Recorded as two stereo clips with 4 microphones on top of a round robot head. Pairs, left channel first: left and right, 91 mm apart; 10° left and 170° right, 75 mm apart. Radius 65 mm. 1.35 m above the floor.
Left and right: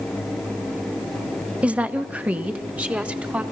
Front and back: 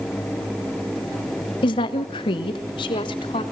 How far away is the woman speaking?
About 1.1 m.